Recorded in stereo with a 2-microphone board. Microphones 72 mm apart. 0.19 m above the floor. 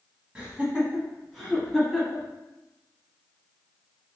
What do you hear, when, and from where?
0.3 s laughter: 15° right (ahead or behind), 1.0 m; by 2.3 s centre (ahead or behind), 1.7 m